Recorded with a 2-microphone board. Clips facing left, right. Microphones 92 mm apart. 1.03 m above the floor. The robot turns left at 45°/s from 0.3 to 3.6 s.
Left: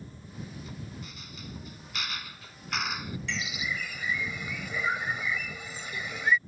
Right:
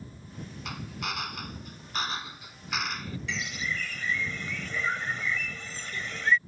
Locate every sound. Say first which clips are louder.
0.7 s a drill: right 6 dB; 85° right; by 3.2 s 160° left
3.3 s a bird: right 1 dB; 5° right (ahead or behind); by 6.4 s 10° left (ahead or behind)